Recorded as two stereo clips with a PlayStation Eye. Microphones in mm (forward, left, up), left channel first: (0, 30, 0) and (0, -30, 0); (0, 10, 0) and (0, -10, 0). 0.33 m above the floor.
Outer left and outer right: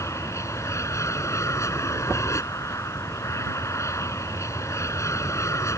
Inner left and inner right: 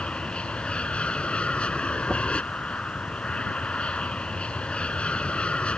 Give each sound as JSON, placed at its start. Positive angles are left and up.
{"t": 0.0, "sound": "an aircraft", "side_deg": 60}